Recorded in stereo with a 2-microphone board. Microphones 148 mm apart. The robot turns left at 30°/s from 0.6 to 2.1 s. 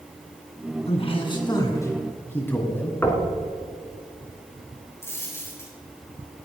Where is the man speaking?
55° left, 2.5 m; by 3.0 s 15° left, 2.5 m.